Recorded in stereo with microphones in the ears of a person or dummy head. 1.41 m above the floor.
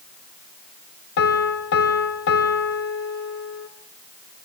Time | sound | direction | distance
1.2 | a piano | 60° left (ahead or behind) | 2 m